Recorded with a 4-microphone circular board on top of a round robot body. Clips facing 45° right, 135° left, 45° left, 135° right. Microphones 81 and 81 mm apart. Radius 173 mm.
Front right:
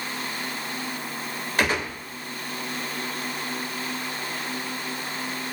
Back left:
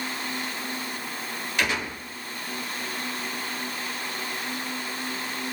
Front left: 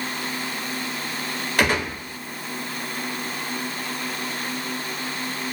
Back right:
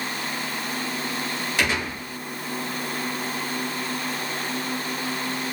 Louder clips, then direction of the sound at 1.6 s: Front right 3 dB, front left 4 dB; 5° left.